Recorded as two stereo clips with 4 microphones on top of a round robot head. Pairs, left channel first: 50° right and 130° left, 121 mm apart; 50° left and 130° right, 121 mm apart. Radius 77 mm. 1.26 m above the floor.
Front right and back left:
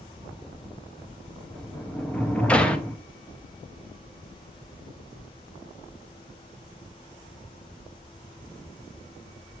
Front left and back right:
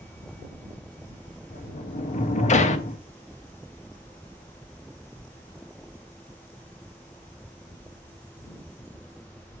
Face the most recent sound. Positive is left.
turn(degrees=30)